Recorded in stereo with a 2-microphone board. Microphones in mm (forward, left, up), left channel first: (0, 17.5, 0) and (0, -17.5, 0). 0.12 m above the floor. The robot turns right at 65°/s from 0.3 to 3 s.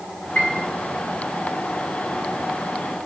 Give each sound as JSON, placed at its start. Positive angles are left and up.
{"t": 0.3, "sound": "a piano", "side_deg": 45, "distance_m": 4.5}